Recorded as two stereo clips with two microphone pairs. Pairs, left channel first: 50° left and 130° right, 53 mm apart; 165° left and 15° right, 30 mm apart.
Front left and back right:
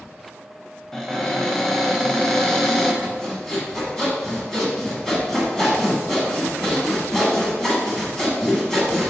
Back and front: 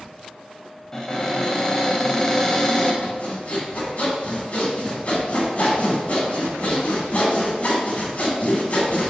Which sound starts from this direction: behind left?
Sawing, at 3.0 s.